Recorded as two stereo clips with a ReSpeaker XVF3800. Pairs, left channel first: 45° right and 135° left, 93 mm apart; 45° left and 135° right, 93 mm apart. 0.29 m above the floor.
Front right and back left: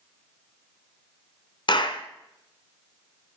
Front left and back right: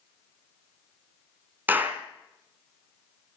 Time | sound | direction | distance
1.7 | a clap | 65° right | 1.9 m